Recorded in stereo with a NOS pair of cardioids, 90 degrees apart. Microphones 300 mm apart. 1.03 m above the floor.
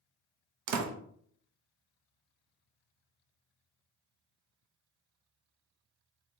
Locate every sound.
0.7 s a door slam: 65° right, 0.6 m